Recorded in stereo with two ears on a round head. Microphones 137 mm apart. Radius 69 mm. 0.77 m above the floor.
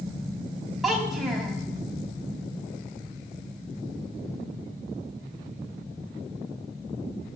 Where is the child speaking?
Centre (ahead or behind), 4 m.